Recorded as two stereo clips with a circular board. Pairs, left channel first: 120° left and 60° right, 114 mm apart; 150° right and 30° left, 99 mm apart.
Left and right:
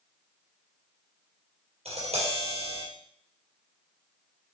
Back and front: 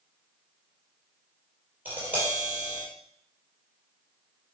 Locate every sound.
1.9 s tapping: 45° right, 4 m